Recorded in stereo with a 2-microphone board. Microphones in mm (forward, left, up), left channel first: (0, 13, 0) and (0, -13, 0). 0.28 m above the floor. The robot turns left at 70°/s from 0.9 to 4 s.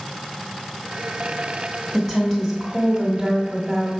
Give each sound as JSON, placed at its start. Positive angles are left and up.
{"t": 1.9, "sound": "a woman speaking", "side_deg": 15, "distance_m": 1.5}